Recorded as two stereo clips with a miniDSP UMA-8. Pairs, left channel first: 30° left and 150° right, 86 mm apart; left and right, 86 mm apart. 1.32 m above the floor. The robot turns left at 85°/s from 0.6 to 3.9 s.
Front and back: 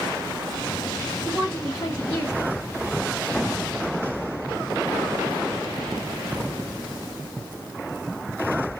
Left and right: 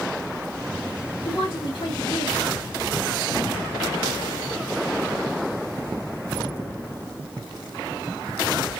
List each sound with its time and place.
1.2 s a woman speaking: 130° left, 1.9 m; by 2.6 s 10° left, 1.9 m